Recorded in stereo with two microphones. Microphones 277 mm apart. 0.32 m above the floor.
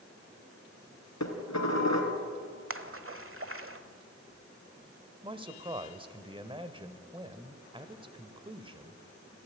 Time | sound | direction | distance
1.2 | dishes clattering | 75° left (ahead or behind) | 3 m
2.7 | a splash | 50° right (ahead or behind) | 1.2 m
5.2 | a man speaking | 20° right (ahead or behind) | 1.3 m